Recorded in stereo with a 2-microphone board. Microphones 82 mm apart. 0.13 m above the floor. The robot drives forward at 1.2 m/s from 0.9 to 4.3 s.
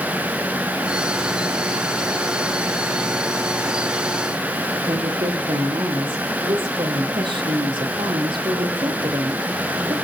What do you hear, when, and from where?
4.9 s a woman speaking: 75° right (ahead or behind), 4 m